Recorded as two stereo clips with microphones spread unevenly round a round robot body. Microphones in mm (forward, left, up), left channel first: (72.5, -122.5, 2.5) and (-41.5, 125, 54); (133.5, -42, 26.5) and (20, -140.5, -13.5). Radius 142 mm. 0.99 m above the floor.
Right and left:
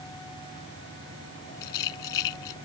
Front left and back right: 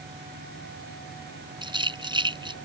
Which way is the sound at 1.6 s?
80° right.